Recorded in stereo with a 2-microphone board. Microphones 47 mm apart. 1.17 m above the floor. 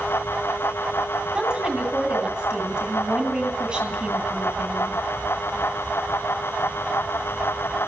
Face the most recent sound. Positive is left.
turn(degrees=-20)  # may be behind; listen again after turning